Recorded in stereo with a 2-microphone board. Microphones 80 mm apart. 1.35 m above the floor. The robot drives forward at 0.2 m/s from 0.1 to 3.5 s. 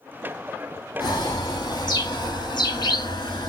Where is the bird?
60° left (ahead or behind), 1.2 m; by 3.5 s 65° left (ahead or behind), 1.1 m.